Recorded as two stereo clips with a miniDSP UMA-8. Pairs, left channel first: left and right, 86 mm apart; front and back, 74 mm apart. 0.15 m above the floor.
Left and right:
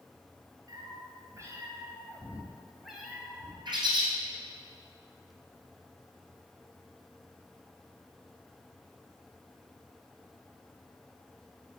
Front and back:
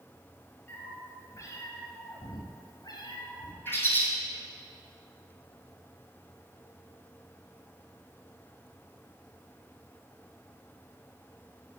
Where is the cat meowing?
55° right, 1.4 m; by 3.5 s 10° left, 1.4 m.